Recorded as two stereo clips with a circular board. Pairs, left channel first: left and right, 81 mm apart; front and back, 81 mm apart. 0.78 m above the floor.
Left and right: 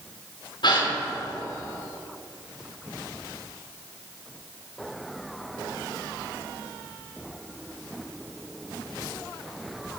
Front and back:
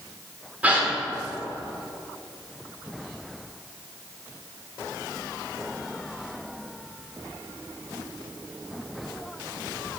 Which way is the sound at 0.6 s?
110° left.